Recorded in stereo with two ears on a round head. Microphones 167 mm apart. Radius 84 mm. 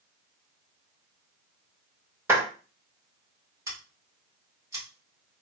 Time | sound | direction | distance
2.3 | a clap | 10° right (ahead or behind) | 2.0 m
3.7 | scissors | 15° right (ahead or behind) | 1.8 m